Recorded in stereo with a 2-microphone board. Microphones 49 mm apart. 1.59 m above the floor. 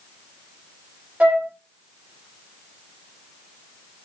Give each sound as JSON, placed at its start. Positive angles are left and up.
{"t": 1.2, "sound": "a flute", "side_deg": -30, "distance_m": 1.5}